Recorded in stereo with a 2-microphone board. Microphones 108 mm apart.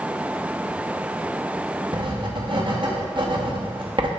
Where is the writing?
50° right (ahead or behind), 0.9 m.